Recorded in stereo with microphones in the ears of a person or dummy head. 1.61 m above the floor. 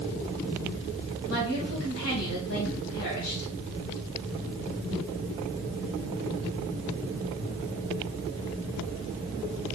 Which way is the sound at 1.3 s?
75° left (ahead or behind).